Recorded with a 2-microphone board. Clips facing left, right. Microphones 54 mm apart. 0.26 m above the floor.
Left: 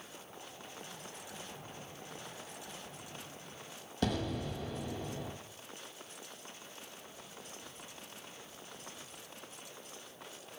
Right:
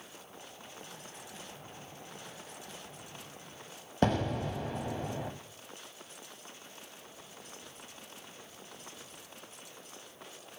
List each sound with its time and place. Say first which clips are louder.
4.0 s an explosion: right 5 dB; 40° right (ahead or behind), 0.6 m